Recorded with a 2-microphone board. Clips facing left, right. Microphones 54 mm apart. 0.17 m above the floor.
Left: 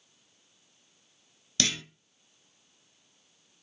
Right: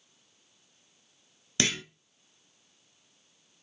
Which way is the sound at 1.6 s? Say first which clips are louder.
Right 2 dB; 30° right (ahead or behind).